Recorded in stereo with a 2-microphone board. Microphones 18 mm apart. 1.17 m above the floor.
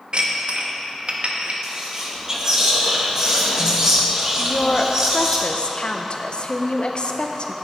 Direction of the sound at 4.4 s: 55° left (ahead or behind).